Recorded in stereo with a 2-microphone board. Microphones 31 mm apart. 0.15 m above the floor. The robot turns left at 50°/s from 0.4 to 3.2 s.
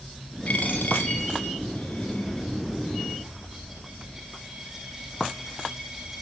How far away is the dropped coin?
About 7 m.